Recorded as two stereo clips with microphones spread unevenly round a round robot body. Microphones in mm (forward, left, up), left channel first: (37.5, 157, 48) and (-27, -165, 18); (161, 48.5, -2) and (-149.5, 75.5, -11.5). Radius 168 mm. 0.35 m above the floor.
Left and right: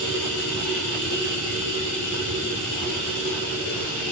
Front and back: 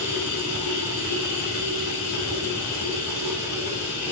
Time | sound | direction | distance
0.0 | running water | 35° left | 5 m